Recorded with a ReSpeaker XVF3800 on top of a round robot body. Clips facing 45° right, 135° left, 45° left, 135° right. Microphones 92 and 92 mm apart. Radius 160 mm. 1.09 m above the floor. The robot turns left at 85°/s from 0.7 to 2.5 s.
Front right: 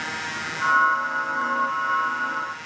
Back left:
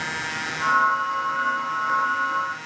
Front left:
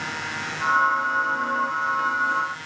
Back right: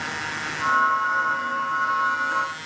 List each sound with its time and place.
Only background noise.